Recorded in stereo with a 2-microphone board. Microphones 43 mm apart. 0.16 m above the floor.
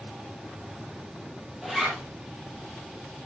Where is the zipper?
10° right (ahead or behind), 6 m.